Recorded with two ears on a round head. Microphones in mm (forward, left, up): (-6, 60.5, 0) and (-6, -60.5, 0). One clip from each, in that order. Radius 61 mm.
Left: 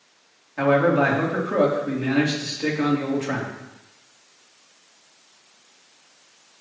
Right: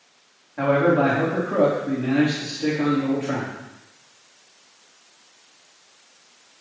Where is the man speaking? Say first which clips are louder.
Even; 70° left (ahead or behind), 3.5 m.